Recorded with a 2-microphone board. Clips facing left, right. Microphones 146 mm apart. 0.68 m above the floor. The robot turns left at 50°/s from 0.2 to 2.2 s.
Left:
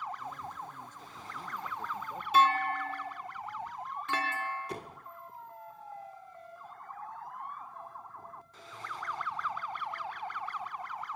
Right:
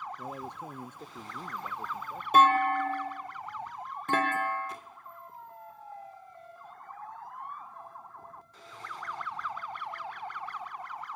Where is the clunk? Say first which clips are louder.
Right 4 dB; 50° right (ahead or behind).